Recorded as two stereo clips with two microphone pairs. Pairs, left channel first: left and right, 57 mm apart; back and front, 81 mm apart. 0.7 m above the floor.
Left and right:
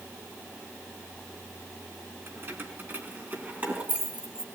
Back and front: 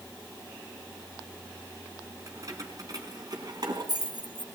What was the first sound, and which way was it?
Keys jangling, 50° right.